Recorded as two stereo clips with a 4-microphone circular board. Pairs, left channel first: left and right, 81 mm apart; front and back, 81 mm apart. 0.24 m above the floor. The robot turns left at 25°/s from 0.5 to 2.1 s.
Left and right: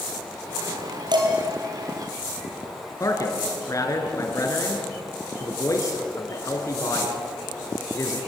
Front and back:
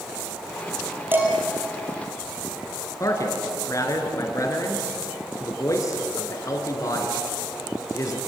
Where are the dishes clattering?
115° right, 4.5 m; by 1.3 s 120° right, 4.5 m.